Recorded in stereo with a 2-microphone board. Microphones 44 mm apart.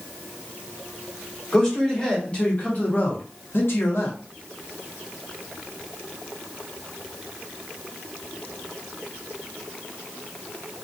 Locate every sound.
1.5 s a man speaking: 15° left (ahead or behind), 1.3 m; by 4.2 s 60° left (ahead or behind), 0.9 m